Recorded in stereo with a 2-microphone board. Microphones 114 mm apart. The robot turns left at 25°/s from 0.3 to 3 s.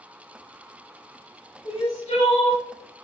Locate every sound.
1.6 s crying: 70° left (ahead or behind), 1.2 m; by 2.6 s 60° left (ahead or behind), 1.2 m